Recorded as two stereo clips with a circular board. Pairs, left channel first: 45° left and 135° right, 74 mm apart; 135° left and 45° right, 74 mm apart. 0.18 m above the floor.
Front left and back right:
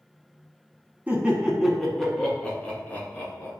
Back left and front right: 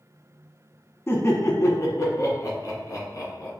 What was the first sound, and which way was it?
Laughter, 165° left.